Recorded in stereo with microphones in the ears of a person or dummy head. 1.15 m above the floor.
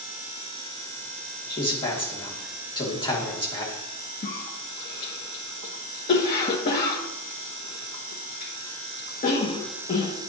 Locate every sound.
1.5 s a man speaking: 15° left (ahead or behind), 2.5 m
4.2 s a cough: 45° left (ahead or behind), 1.2 m